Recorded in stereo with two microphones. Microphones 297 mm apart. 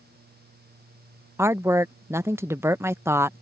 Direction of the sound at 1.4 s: 10° right (ahead or behind).